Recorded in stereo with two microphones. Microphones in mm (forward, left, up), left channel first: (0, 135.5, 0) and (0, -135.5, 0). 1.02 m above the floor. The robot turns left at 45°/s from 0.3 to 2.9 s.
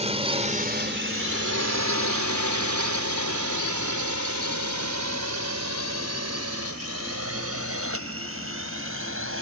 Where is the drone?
20° right (ahead or behind); by 9.4 s 45° right (ahead or behind).